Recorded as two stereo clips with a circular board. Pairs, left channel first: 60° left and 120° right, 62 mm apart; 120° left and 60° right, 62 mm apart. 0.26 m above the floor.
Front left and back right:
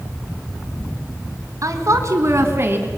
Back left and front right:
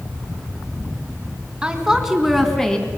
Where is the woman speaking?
135° right, 3 m; by 2.9 s 170° right, 2.5 m.